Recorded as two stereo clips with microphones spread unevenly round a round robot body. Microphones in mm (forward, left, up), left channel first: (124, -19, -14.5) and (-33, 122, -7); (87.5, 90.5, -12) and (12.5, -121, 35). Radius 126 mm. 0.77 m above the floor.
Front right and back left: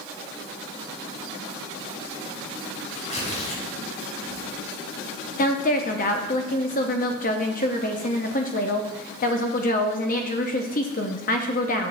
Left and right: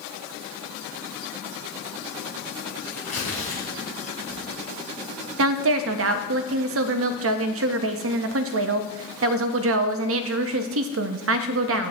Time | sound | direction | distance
2.9 | tearing paper | 15° left | 3.5 m
5.4 | a woman speaking | 90° right | 0.6 m